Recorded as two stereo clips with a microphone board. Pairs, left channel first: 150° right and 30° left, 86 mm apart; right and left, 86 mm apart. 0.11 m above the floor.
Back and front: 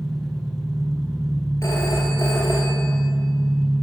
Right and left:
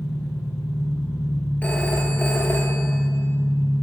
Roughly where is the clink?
I don't hear a clink.